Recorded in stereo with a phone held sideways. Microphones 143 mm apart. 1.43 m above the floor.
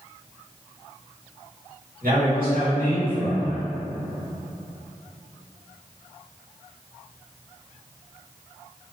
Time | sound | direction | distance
2.0 | a man speaking | 80° right | 2.0 m